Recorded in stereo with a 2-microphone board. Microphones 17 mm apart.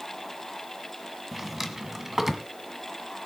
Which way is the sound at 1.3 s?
15° right (ahead or behind).